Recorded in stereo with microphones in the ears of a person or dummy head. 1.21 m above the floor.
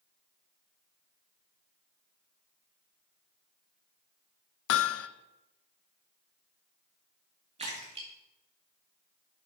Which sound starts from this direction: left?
Hammering, at 4.7 s.